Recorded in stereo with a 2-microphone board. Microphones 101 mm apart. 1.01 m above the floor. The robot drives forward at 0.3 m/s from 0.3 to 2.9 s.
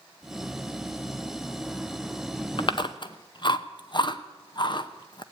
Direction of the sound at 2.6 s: 50° left (ahead or behind).